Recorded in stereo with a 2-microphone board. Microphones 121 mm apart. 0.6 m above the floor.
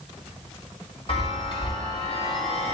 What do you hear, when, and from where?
1.1 s a chime: 50° left (ahead or behind), 1.7 m